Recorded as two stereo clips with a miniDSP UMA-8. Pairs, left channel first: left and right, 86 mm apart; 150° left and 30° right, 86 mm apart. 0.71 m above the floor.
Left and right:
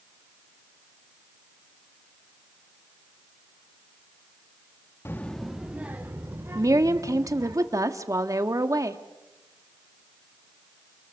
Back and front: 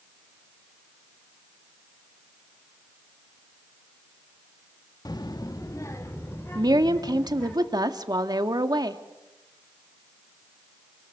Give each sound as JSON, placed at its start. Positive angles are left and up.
{"t": 5.0, "sound": "a child speaking", "azimuth_deg": 140, "distance_m": 0.9}
{"t": 6.5, "sound": "a woman speaking", "azimuth_deg": -50, "distance_m": 1.5}